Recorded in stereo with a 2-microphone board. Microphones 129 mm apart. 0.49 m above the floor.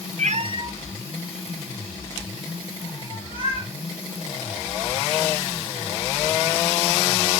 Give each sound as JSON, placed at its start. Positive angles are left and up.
{"t": 0.2, "sound": "a cat meowing", "side_deg": -70, "distance_m": 0.7}